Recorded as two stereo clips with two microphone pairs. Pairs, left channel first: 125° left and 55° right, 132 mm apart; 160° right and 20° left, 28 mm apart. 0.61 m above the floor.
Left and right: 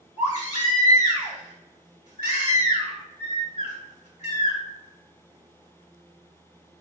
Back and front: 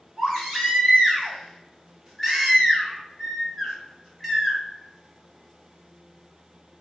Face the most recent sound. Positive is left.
turn(degrees=90)